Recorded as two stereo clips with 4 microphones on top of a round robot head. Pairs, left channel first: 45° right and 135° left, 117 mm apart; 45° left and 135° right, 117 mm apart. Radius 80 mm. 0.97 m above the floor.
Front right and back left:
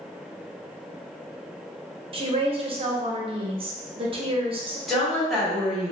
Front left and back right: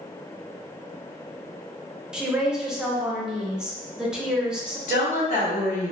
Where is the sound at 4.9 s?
45° left, 1.3 m.